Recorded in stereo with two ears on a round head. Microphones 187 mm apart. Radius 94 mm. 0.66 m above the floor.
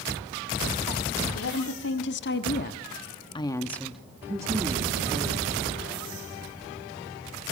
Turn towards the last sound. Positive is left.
turn(degrees=-35)  # may be behind; listen again after turning